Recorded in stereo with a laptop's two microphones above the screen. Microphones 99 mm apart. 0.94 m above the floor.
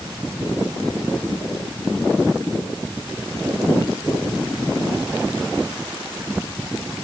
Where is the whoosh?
I don't hear a whoosh.